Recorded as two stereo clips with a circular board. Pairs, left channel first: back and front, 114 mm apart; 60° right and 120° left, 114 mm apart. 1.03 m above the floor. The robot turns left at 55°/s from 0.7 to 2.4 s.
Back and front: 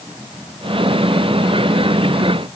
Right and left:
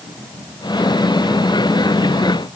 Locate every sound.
Only background noise.